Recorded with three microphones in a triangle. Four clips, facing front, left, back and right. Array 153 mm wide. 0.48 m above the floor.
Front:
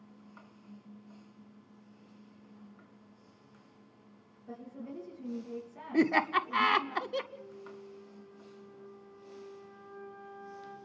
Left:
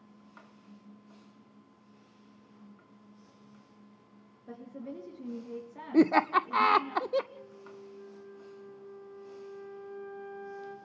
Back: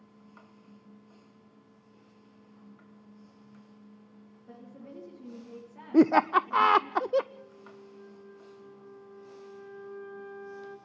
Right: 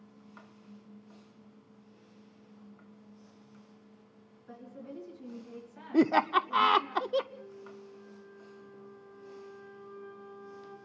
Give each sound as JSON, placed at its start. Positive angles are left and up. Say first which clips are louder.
{"t": 4.5, "sound": "a woman speaking", "louder": "left 3 dB, front 4 dB", "azimuth_deg": 90, "distance_m": 7.5}
{"t": 5.9, "sound": "laughter", "louder": "left 1 dB, back 6 dB", "azimuth_deg": 170, "distance_m": 0.8}
{"t": 7.3, "sound": "a flute", "louder": "right 1 dB, front 2 dB", "azimuth_deg": 170, "distance_m": 5.5}